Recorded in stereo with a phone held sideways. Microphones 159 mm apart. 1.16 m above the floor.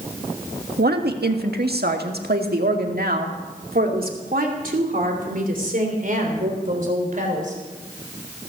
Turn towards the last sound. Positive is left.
turn(degrees=-55)  # may be behind; listen again after turning